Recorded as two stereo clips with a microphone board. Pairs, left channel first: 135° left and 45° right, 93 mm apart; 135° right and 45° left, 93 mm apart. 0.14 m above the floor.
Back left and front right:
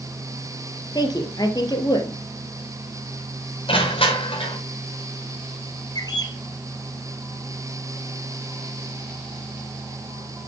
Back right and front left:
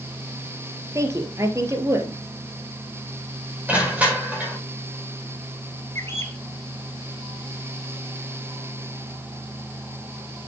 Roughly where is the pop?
I don't hear a pop.